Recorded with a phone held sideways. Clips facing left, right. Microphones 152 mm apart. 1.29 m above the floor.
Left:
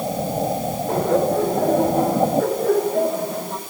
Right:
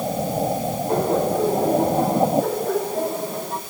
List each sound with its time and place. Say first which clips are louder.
0.9 s laughter: left 2 dB; 85° left, 8 m; by 3.6 s 80° left, 8 m